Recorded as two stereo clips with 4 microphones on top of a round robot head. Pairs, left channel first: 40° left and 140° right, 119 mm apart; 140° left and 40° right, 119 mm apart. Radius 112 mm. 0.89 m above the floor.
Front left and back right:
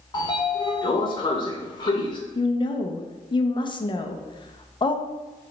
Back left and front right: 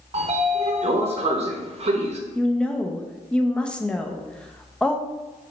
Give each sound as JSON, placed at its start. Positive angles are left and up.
{"t": 0.1, "sound": "a sliding door", "azimuth_deg": -10, "distance_m": 0.7}
{"t": 2.4, "sound": "a woman speaking", "azimuth_deg": 60, "distance_m": 0.6}